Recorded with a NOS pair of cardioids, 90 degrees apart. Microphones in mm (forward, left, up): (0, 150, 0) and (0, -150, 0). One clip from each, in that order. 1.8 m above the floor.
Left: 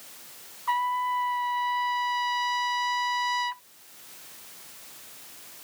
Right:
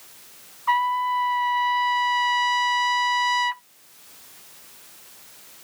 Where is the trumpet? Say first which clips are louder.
Right 5 dB; 35° right.